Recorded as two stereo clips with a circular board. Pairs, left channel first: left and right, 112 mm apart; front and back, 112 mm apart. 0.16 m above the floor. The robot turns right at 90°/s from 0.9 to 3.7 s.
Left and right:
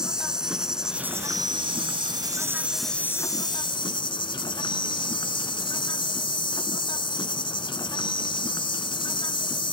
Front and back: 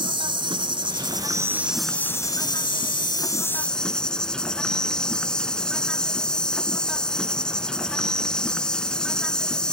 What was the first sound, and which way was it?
An insect, 170° right.